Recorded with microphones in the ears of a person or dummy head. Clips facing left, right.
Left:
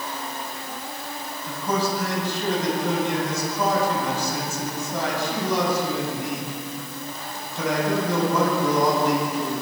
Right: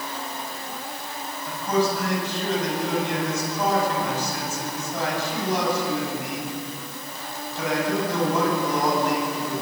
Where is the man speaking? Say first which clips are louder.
Right 2 dB; 75° left (ahead or behind), 9 m.